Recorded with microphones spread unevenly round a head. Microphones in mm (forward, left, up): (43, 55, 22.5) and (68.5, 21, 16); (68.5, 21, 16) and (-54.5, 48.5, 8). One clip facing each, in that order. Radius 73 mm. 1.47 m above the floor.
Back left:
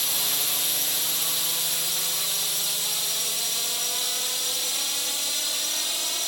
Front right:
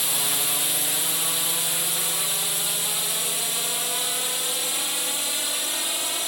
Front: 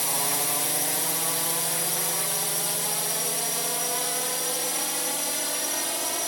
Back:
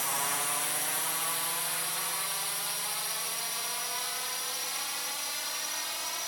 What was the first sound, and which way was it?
A drone, 5° left.